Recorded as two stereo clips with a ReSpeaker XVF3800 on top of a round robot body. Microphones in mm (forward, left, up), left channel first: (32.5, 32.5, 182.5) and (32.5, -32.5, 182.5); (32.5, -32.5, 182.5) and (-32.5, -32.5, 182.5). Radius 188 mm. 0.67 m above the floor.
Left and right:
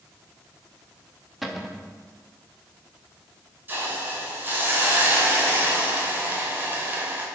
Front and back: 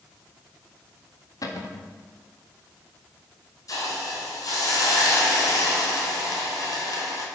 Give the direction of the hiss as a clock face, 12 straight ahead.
1 o'clock.